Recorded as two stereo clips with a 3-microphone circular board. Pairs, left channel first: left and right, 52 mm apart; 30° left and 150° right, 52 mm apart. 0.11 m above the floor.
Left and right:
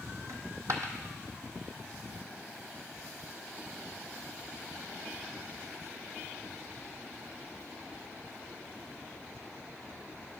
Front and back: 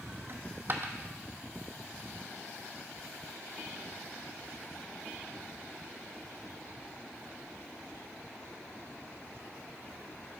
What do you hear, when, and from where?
0.3 s a dropped coin: 110° right, 0.7 m